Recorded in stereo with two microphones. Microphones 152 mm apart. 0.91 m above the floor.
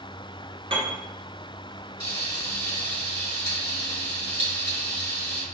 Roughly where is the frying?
Right.